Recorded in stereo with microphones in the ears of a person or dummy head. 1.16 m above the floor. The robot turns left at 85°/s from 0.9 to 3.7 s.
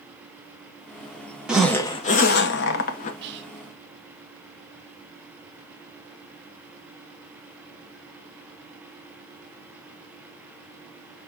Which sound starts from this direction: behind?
A zipper, at 1.5 s.